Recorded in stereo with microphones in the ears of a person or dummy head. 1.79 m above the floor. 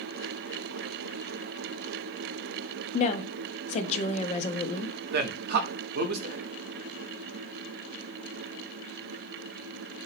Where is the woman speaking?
40° left (ahead or behind), 0.5 m.